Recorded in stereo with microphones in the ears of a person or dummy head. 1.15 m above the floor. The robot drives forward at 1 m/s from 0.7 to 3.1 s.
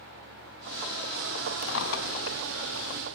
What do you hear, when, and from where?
1.6 s a drawer: 75° left (ahead or behind), 4 m; by 2.4 s 85° left, 4 m